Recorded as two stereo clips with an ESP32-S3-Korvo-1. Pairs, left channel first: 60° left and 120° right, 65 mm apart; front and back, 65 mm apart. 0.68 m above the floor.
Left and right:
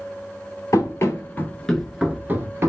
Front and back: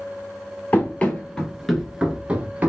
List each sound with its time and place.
0.7 s running footsteps: 55° left, 0.9 m; by 2.7 s 130° right, 0.8 m